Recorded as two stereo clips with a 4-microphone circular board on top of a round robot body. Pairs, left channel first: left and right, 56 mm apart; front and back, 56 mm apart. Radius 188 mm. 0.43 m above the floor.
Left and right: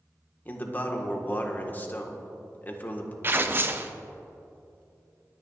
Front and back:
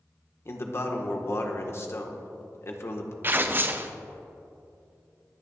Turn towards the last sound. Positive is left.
turn(degrees=-135)